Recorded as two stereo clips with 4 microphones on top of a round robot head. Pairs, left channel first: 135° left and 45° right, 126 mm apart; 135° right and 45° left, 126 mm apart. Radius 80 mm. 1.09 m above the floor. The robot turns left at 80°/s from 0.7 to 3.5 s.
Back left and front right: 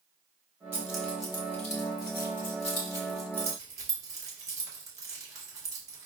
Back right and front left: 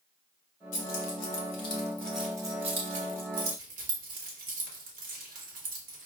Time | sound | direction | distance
0.7 | keys jangling | 115° right | 1.2 m